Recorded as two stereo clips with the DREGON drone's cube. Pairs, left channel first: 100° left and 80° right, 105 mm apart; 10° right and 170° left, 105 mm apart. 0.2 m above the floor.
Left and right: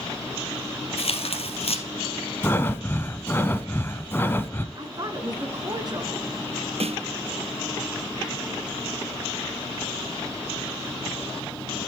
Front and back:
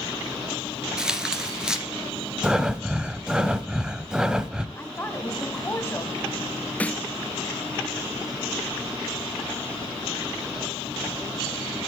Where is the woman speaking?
70° right, 2.0 m.